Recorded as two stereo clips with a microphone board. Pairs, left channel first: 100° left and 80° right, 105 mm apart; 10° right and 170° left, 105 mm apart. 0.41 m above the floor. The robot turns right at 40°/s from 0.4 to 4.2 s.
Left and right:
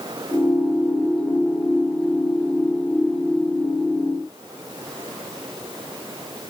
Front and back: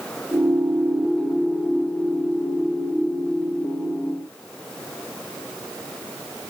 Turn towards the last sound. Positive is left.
No sound to turn to.